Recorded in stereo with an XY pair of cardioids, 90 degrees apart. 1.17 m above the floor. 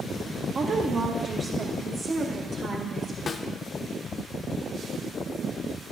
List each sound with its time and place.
0.6 s a woman speaking: 50° right, 0.7 m; by 3.2 s 55° right, 2 m
3.3 s a snare drum: 50° left, 0.6 m